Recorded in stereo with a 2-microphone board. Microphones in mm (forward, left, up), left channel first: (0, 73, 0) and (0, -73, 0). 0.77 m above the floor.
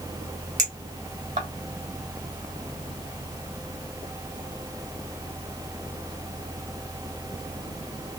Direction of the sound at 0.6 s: 60° right (ahead or behind).